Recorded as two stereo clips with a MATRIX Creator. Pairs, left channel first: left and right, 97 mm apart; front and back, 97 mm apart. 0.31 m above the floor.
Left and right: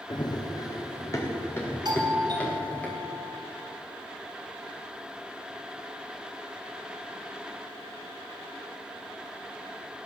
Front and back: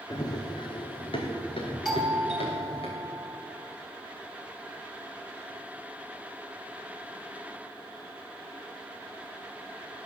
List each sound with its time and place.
0.1 s running footsteps: 50° left, 2.5 m; by 2.9 s 15° left, 6 m
1.9 s a doorbell: 95° right, 3 m